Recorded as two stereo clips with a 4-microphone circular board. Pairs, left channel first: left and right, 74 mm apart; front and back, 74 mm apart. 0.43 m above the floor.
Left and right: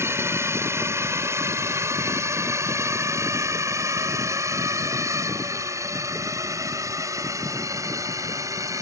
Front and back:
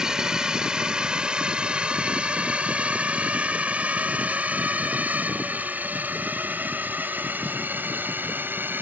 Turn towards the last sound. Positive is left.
turn(degrees=-120)